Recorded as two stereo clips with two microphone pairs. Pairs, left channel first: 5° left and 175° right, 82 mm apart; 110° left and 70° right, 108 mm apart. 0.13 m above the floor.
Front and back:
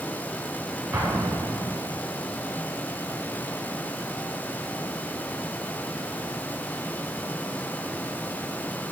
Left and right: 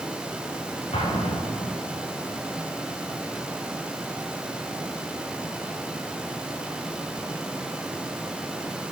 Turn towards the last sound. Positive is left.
turn(degrees=125)